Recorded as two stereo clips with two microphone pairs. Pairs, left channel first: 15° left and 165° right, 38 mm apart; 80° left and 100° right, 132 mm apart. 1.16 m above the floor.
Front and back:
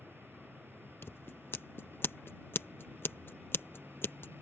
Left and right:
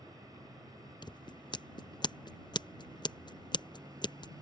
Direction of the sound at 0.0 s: 160° right.